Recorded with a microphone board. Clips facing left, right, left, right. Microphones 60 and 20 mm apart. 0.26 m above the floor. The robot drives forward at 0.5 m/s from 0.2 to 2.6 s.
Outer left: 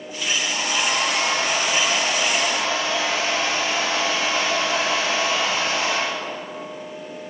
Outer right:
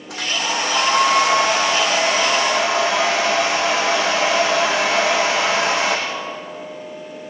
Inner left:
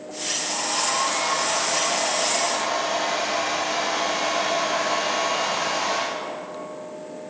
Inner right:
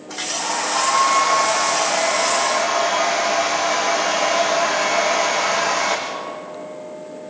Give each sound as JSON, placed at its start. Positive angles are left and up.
{"t": 0.1, "sound": "a hair dryer", "side_deg": -80, "distance_m": 7.0}